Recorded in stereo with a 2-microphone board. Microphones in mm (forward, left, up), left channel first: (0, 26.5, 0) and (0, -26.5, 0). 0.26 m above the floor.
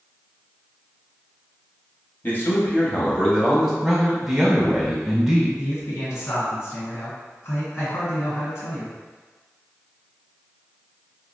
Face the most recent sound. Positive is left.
turn(degrees=55)  # may be behind; listen again after turning